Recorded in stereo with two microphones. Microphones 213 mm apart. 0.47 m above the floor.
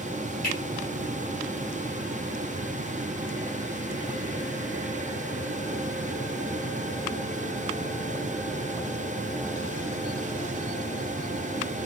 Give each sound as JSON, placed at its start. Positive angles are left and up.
{"t": 0.4, "sound": "a finger snap", "side_deg": 45, "distance_m": 1.3}